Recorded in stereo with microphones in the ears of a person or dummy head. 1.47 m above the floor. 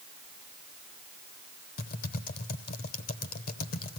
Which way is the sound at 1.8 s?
45° left (ahead or behind).